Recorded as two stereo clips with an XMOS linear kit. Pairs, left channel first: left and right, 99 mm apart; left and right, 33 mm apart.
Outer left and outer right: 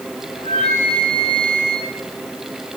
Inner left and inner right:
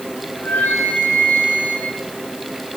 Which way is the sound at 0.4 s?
65° left (ahead or behind).